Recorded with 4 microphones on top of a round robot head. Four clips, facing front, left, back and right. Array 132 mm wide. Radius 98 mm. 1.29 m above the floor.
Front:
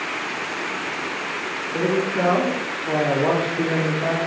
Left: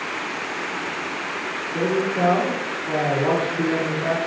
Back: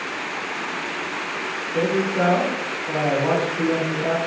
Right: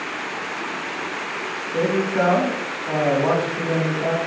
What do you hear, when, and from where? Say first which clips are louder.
1.7 s a man speaking: right 2 dB, back 1 dB; 75° right, 4 m